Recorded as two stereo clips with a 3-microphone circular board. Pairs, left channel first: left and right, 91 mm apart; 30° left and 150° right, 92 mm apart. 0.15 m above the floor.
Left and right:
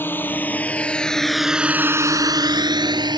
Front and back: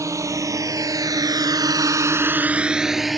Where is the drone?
155° left; by 3.2 s 60° right.